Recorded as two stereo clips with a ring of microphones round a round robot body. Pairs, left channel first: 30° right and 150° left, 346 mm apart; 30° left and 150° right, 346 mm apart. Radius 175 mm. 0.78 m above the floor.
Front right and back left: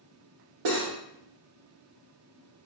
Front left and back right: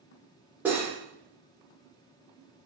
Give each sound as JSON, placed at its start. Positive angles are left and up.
{"t": 0.7, "sound": "cutlery clinking", "azimuth_deg": 125, "distance_m": 1.1}